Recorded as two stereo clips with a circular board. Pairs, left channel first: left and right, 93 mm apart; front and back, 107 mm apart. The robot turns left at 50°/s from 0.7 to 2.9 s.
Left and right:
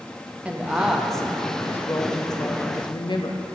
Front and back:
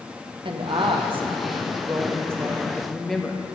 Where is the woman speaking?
165° right, 0.6 m; by 3.5 s 85° left, 0.6 m.